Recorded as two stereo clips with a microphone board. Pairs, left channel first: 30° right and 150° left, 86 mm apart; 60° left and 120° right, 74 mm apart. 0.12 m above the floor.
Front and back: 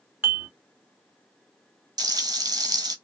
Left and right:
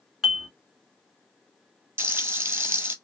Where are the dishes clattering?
170° left, 1.0 m.